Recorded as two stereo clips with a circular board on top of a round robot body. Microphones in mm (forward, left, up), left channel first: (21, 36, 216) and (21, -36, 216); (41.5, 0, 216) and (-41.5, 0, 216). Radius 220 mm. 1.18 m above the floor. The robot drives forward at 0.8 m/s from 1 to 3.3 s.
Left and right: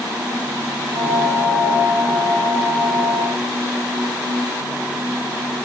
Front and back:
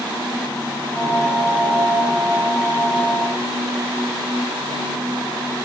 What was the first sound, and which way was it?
Only background noise.